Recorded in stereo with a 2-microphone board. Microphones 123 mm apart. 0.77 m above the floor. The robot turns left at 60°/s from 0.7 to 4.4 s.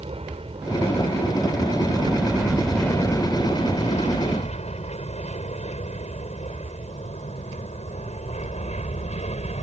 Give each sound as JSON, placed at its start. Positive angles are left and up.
{"t": 0.0, "sound": "an aircraft", "side_deg": -50}